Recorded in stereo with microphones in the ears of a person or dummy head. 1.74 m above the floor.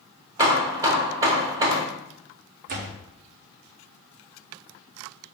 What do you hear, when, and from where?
0.4 s hammering: 20° right (ahead or behind), 0.9 m
2.7 s a door slam: 50° right (ahead or behind), 0.7 m